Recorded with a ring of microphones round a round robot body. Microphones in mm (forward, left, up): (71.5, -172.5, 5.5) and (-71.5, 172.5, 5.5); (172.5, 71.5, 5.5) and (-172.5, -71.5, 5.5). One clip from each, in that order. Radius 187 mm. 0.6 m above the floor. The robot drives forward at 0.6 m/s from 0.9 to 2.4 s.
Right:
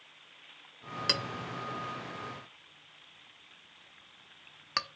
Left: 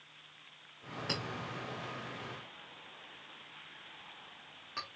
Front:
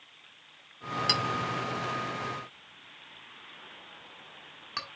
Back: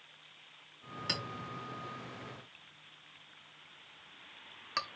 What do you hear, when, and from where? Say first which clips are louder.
1.1 s a clink: right 7 dB, front 9 dB; 35° right, 1.1 m; by 4.9 s 80° right, 0.7 m